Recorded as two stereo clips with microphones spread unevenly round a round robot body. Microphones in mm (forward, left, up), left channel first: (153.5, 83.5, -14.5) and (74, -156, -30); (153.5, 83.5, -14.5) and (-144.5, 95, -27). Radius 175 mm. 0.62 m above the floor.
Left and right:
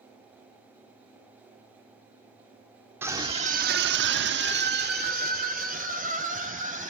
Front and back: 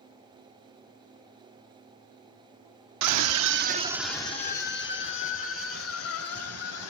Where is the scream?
170° left, 1.0 m; by 6.9 s 50° right, 3.5 m.